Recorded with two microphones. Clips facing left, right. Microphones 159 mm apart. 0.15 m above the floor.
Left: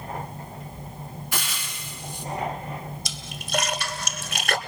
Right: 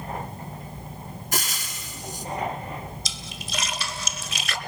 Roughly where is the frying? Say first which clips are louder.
Right 4 dB; right.